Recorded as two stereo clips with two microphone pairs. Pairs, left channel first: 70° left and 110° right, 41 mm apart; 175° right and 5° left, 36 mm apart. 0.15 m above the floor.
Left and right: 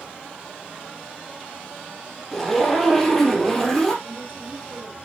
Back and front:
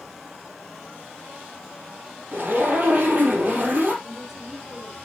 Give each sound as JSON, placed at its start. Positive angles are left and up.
{"t": 2.3, "sound": "a zipper", "azimuth_deg": -15, "distance_m": 4.0}
{"t": 4.0, "sound": "a woman speaking", "azimuth_deg": -80, "distance_m": 4.0}